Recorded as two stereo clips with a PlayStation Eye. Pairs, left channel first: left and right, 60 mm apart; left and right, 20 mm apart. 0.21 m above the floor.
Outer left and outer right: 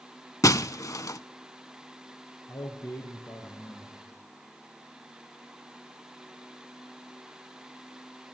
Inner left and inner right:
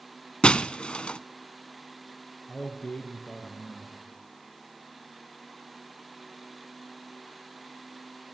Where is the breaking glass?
60° left (ahead or behind), 0.6 m.